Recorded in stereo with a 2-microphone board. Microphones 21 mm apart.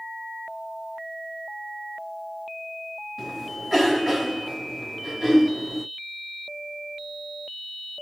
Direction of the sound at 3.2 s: 15° right (ahead or behind).